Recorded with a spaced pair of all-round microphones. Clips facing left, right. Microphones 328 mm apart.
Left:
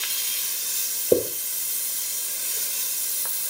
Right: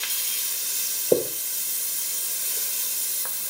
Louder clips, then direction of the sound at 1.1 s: Left 1 dB; 5° left (ahead or behind).